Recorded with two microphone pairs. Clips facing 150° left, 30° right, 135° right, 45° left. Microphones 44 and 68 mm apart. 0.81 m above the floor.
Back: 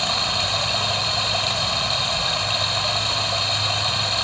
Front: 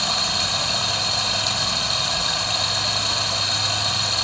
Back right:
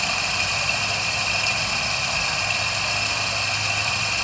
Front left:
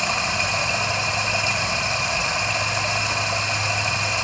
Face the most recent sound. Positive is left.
turn(degrees=95)